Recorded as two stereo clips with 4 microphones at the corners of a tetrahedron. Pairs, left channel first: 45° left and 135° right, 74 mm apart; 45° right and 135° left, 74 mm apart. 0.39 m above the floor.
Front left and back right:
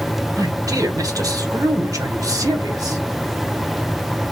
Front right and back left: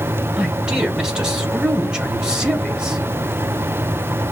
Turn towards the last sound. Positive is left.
turn(degrees=-145)